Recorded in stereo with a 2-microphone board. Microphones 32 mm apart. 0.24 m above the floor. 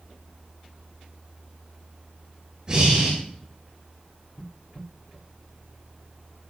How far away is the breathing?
About 7 m.